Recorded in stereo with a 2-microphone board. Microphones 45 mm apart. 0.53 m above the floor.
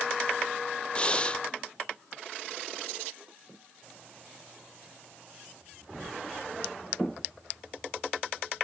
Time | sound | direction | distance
0.9 | breathing | 25° left (ahead or behind) | 0.9 m